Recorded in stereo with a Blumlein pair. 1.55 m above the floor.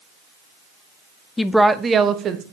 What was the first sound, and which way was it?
A woman speaking, 15° left.